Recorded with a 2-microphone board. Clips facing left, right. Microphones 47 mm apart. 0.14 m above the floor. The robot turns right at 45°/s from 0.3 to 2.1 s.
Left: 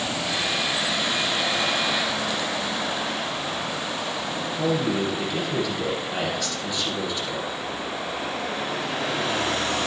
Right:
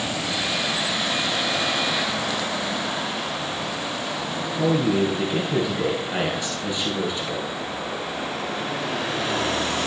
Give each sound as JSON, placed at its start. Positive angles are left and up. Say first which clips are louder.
{"t": 4.6, "sound": "a man speaking", "louder": "right 4 dB", "side_deg": -20, "distance_m": 2.5}